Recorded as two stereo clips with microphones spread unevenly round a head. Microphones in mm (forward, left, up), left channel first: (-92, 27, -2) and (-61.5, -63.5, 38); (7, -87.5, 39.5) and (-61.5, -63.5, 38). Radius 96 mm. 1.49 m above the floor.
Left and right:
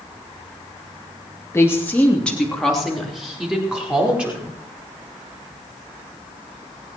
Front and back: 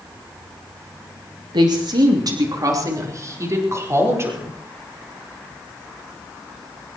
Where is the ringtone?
I don't hear a ringtone.